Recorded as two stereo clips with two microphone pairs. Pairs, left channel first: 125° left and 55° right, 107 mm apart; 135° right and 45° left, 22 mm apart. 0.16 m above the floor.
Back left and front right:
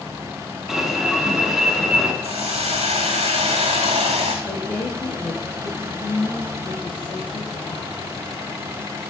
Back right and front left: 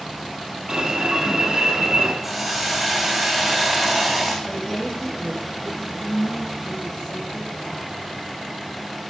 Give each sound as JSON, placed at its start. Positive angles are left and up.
{"t": 0.7, "sound": "an alarm", "azimuth_deg": 30, "distance_m": 2.5}
{"t": 2.2, "sound": "a hiss", "azimuth_deg": -45, "distance_m": 3.5}
{"t": 4.5, "sound": "a woman speaking", "azimuth_deg": 160, "distance_m": 5.0}